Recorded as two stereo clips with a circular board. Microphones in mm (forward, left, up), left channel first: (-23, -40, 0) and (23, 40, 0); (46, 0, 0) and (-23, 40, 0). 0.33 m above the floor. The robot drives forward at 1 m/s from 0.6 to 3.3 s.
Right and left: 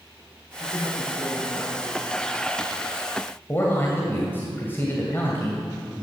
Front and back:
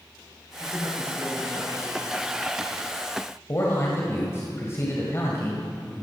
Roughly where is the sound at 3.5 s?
Ahead right.